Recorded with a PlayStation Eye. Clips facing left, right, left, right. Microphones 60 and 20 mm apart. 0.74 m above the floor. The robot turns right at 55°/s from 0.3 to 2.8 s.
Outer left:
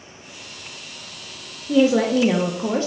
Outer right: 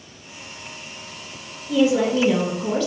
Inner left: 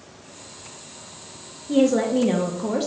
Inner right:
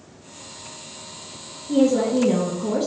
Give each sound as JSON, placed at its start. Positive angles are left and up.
{"t": 1.7, "sound": "a woman speaking", "azimuth_deg": 75, "distance_m": 0.6}